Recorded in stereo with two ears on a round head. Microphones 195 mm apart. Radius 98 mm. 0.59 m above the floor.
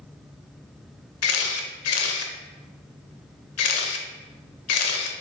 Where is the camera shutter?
70° left (ahead or behind), 0.6 m.